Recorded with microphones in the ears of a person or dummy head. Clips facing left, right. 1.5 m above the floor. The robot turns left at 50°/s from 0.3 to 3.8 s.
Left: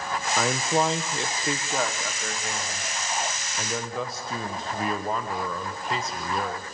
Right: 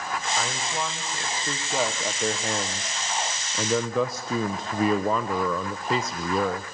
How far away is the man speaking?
About 1.0 m.